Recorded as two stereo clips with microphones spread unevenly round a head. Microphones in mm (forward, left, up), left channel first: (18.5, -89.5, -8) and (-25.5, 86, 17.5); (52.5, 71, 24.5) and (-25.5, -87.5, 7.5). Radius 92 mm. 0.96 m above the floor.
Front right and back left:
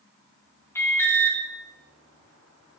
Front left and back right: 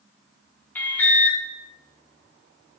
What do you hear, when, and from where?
0.8 s an alarm: 20° right, 1.4 m